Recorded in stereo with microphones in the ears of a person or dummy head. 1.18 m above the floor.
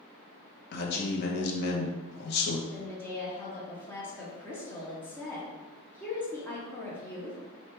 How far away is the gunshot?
No gunshot in this recording.